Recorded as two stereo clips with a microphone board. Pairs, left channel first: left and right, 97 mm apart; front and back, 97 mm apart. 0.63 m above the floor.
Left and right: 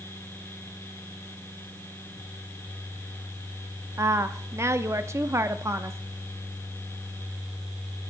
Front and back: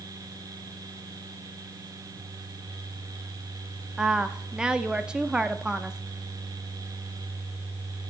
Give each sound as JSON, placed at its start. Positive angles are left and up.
{"t": 4.0, "sound": "a woman speaking", "azimuth_deg": -110, "distance_m": 0.6}